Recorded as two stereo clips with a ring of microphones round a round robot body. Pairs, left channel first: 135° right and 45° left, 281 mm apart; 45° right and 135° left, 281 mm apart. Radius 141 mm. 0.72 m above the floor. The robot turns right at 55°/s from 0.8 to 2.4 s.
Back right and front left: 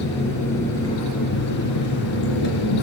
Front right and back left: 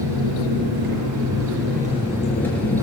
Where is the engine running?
145° left, 3 m; by 2.8 s 130° right, 3 m.